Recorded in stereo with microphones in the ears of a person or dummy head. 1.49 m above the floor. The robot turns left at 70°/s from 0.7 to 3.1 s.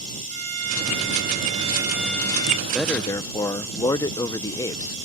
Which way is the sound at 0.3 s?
85° right.